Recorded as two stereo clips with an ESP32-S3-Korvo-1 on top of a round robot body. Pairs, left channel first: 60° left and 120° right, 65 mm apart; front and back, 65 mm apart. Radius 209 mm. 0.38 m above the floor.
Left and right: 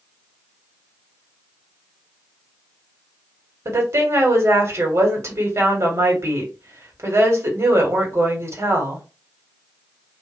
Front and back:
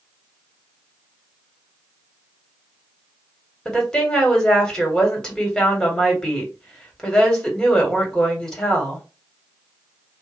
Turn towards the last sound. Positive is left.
turn(degrees=-85)